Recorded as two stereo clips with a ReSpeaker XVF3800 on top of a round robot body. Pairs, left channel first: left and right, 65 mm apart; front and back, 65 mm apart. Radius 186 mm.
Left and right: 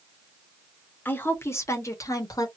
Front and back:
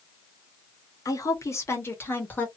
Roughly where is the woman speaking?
Ahead left.